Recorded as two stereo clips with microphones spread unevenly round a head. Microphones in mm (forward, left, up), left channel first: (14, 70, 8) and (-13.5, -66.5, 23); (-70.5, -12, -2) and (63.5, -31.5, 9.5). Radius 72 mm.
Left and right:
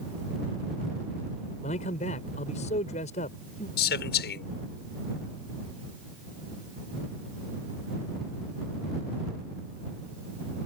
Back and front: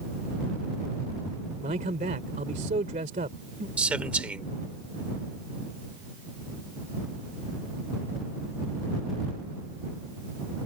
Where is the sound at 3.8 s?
75° left.